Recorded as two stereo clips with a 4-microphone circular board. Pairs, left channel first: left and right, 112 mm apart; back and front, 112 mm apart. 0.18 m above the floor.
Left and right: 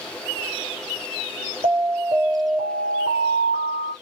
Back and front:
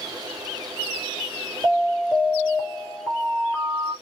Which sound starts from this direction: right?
An alarm, at 1.6 s.